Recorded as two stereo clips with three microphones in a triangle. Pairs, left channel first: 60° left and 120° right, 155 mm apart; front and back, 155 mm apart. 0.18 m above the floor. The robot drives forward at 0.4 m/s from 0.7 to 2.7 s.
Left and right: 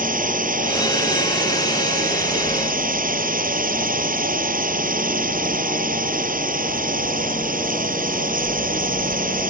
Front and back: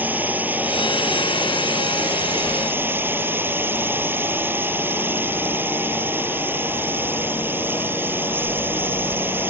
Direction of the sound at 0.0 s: 100° right.